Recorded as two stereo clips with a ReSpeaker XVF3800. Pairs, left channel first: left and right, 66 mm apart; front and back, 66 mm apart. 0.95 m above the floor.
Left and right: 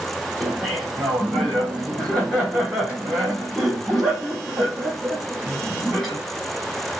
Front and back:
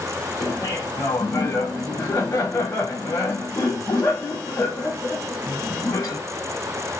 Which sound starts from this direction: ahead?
Laughter, at 0.4 s.